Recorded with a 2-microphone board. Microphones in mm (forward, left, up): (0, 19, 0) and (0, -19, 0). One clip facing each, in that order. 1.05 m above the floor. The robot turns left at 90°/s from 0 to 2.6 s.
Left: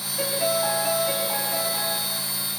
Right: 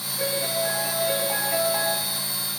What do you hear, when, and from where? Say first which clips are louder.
0.2 s a piano: left 2 dB; 80° left, 9 m; by 2.0 s 80° right, 9 m